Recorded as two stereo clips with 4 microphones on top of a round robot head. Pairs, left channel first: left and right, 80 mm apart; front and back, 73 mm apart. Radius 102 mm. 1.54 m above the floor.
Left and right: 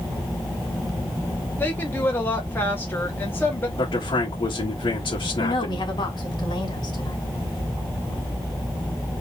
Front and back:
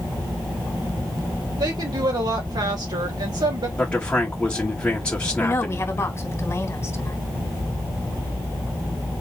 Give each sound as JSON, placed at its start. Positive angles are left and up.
{"t": 1.6, "sound": "a woman speaking", "azimuth_deg": 155, "distance_m": 2.0}
{"t": 3.8, "sound": "a man speaking", "azimuth_deg": 70, "distance_m": 1.8}
{"t": 5.4, "sound": "a woman speaking", "azimuth_deg": 55, "distance_m": 2.5}